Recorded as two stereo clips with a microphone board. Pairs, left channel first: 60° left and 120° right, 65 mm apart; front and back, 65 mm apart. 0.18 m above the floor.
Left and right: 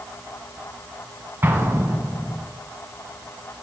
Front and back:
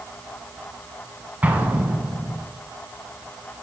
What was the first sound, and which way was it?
An explosion, 135° right.